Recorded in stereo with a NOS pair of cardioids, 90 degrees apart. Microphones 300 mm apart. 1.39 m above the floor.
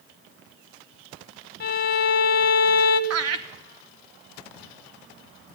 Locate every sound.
1.6 s a violin: 30° left, 1.4 m
3.1 s laughter: 55° right, 0.6 m